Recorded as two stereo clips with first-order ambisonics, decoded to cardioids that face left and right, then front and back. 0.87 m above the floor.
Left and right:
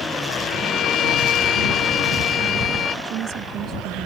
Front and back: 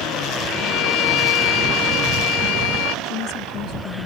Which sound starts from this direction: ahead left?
A violin, at 0.5 s.